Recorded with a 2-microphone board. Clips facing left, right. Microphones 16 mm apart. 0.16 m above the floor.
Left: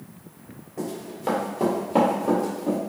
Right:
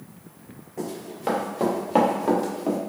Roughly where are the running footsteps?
Centre.